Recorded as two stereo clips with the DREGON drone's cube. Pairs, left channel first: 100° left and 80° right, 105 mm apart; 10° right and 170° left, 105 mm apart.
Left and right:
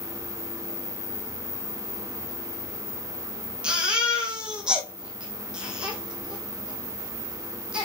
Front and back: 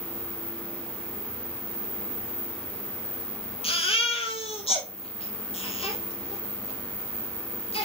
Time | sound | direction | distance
3.6 | a baby crying | straight ahead | 2.5 m